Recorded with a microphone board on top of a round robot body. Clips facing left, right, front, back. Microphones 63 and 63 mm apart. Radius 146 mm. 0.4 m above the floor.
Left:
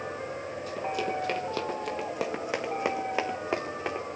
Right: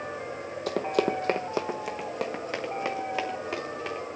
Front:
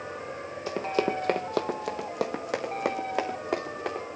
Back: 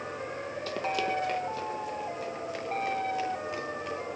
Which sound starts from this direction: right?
Running footsteps, at 0.7 s.